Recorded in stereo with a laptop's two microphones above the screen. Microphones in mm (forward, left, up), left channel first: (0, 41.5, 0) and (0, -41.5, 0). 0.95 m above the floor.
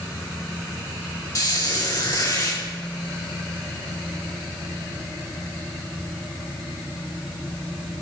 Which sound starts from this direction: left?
A squeak, at 1.4 s.